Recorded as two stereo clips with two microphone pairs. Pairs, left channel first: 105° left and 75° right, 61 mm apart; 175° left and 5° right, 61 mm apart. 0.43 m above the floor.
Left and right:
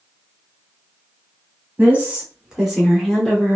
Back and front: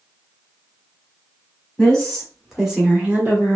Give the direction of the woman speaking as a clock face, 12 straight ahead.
4 o'clock.